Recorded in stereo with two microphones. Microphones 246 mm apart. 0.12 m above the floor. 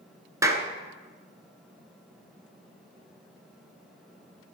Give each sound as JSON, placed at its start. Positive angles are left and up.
{"t": 0.4, "sound": "a clap", "side_deg": -15, "distance_m": 1.0}